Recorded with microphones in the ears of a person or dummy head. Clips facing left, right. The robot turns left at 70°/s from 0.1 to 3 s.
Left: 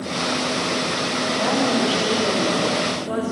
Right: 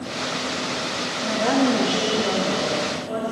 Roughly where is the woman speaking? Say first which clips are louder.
Right 3 dB; behind right.